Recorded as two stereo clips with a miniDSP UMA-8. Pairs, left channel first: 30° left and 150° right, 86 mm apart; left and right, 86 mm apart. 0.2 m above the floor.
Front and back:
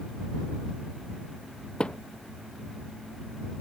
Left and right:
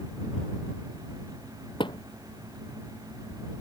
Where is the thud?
110° left.